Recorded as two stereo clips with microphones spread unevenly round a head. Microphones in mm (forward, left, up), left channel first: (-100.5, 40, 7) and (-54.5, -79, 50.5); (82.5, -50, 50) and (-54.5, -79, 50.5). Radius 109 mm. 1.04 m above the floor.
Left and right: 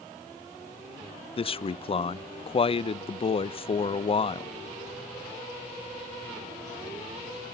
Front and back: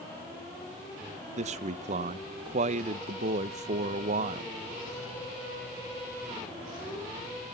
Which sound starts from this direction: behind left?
A man speaking, at 1.4 s.